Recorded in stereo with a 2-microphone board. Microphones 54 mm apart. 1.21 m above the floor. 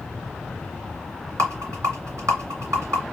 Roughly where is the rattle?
Right.